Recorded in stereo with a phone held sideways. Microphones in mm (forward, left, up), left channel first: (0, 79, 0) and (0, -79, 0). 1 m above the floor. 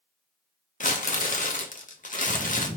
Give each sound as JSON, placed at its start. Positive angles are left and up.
{"t": 0.8, "sound": "crumpling", "side_deg": 55, "distance_m": 0.6}